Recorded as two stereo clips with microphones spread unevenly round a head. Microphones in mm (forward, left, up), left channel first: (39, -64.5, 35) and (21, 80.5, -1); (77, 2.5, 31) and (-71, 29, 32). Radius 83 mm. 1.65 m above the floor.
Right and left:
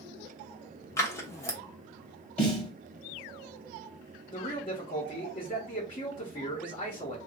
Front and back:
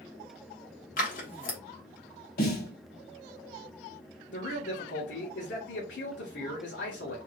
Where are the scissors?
35° right, 1.1 m.